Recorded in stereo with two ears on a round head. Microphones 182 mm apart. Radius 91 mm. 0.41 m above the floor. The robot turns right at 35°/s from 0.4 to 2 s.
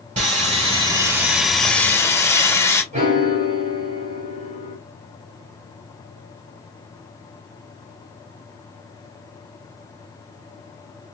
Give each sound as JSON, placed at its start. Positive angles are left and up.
{"t": 0.2, "sound": "sawing", "azimuth_deg": -45, "distance_m": 2.5}
{"t": 2.9, "sound": "a piano", "side_deg": -35, "distance_m": 1.9}